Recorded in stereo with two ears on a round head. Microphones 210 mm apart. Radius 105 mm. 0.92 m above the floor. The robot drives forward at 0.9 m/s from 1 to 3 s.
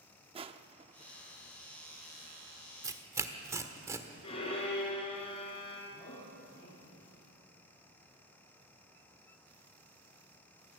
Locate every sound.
0.3 s crushing: 25° right (ahead or behind), 0.5 m
2.8 s tearing paper: 15° right (ahead or behind), 1.1 m
4.2 s a violin: 25° left (ahead or behind), 5 m
5.9 s a man speaking: 25° left (ahead or behind), 7.5 m